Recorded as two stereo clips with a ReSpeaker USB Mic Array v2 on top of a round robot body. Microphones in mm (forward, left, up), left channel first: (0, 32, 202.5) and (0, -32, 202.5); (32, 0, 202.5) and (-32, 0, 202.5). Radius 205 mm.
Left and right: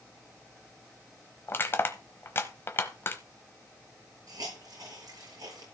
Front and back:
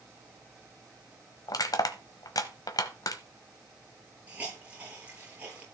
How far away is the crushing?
About 1.0 m.